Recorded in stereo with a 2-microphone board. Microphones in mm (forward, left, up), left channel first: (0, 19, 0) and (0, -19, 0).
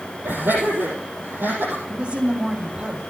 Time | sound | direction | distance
0.2 | laughter | 65° right (ahead or behind) | 6 m
1.9 | a woman speaking | 30° right (ahead or behind) | 1.5 m